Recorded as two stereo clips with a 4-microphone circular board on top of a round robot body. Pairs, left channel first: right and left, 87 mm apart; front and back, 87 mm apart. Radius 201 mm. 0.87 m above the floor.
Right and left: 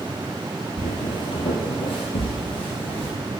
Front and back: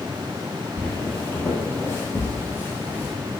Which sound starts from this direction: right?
Footsteps, at 0.8 s.